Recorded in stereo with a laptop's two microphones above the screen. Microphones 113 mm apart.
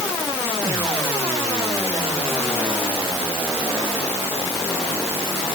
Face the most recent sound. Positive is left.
No sound to turn to.